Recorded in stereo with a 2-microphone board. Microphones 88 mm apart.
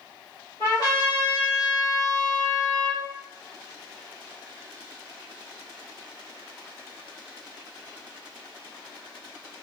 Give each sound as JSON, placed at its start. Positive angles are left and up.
{"t": 0.6, "sound": "a trumpet", "side_deg": 50, "distance_m": 1.6}